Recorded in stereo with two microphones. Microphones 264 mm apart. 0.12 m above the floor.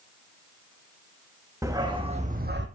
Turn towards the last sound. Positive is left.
turn(degrees=-45)  # may be behind; listen again after turning